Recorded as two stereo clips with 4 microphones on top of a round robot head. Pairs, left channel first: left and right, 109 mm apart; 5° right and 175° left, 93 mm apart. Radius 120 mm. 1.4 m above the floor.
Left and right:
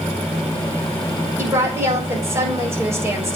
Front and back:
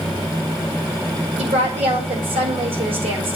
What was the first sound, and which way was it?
A woman speaking, 155° right.